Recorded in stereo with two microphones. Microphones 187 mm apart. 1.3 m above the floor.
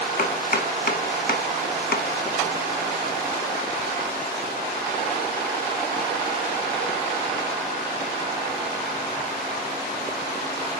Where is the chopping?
55° left (ahead or behind), 0.7 m.